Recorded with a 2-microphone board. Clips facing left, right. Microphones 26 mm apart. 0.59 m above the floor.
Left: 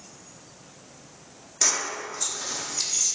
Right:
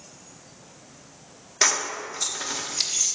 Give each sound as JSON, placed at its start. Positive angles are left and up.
{"t": 1.6, "sound": "keys jangling", "side_deg": -35, "distance_m": 0.7}